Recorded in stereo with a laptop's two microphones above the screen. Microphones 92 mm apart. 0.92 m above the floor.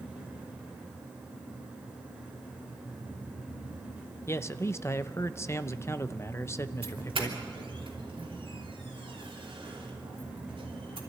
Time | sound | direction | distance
0.0 | a fan | 10° right (ahead or behind) | 2.5 m
4.3 | a man speaking | 30° left (ahead or behind) | 0.6 m
6.8 | a doorbell | 70° right (ahead or behind) | 3 m